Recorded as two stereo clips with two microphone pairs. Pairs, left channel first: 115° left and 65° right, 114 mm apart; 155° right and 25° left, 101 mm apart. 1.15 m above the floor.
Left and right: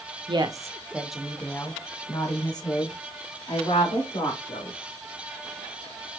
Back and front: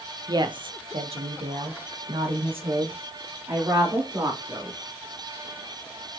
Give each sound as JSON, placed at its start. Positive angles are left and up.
{"t": 0.3, "sound": "a woman speaking", "azimuth_deg": -25, "distance_m": 0.7}